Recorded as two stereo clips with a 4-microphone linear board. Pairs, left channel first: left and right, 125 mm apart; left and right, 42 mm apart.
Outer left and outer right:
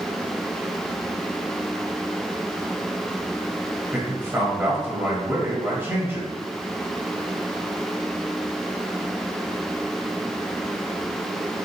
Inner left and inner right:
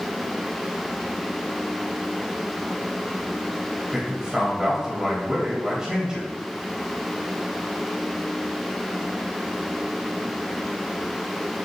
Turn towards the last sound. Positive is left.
turn(degrees=-20)  # may be behind; listen again after turning